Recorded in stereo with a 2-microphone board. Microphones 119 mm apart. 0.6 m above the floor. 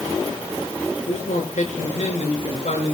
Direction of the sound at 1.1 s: 80° left.